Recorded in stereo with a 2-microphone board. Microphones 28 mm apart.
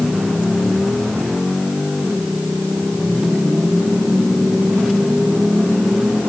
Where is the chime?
No chime in this recording.